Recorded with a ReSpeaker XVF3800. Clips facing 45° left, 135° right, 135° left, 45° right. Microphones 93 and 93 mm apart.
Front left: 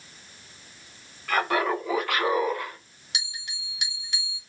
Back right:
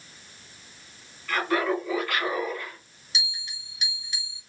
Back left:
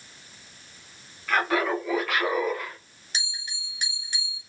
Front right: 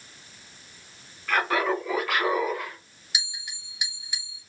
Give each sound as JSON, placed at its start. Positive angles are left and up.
{"t": 1.3, "sound": "laughter", "azimuth_deg": 45, "distance_m": 2.5}
{"t": 3.1, "sound": "a bell", "azimuth_deg": 35, "distance_m": 1.9}